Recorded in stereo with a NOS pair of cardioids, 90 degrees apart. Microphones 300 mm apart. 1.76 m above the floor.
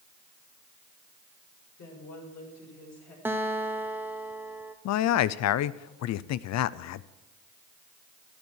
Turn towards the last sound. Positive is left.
turn(degrees=70)